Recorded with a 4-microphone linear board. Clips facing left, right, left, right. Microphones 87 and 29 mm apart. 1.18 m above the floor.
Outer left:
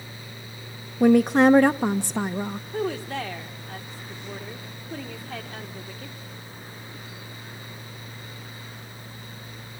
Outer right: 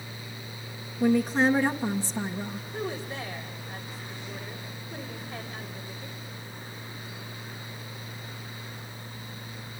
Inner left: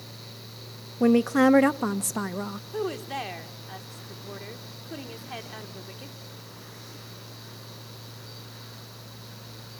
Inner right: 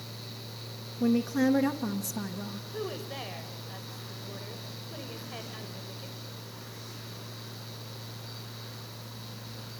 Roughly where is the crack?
No crack in this recording.